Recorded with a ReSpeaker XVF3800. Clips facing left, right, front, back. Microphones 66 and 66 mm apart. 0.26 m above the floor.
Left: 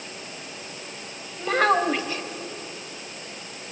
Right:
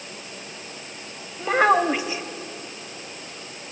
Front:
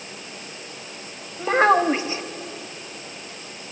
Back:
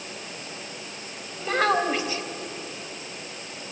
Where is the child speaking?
25° right, 0.9 m.